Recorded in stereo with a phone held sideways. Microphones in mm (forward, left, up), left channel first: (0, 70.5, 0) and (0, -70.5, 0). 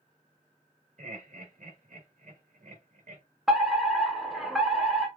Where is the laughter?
65° right (ahead or behind), 1.8 m.